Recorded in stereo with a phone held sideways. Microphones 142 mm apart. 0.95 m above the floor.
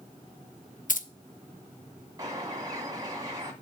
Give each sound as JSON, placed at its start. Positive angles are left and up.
{"t": 0.9, "sound": "keys jangling", "side_deg": 65, "distance_m": 0.5}
{"t": 2.2, "sound": "a bird", "side_deg": -25, "distance_m": 1.6}